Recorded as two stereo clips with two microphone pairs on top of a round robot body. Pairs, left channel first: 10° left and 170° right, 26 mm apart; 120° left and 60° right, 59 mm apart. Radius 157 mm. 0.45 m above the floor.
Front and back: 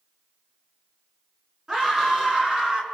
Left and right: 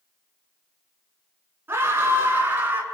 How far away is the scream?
About 8.5 m.